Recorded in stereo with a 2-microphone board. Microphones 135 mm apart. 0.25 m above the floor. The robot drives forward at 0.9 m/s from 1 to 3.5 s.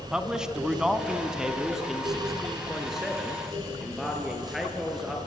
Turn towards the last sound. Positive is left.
turn(degrees=0)  # may be behind; listen again after turning